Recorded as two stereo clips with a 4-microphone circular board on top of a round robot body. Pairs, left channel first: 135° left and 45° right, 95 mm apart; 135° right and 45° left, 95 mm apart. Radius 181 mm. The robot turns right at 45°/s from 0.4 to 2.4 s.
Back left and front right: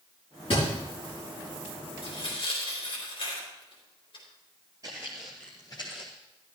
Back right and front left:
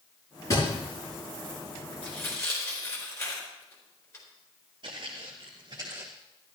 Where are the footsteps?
10° left, 0.9 m; by 6.1 s 115° left, 0.9 m.